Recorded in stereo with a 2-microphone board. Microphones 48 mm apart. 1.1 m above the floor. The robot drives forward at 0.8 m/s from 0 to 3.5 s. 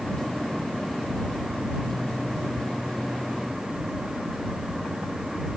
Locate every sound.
Only background noise.